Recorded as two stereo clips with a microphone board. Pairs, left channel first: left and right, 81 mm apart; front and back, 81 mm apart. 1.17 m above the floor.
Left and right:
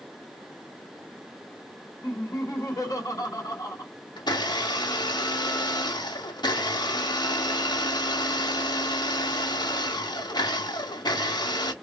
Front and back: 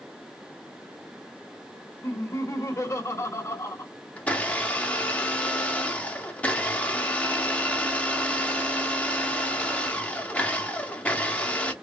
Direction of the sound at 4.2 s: 70° left.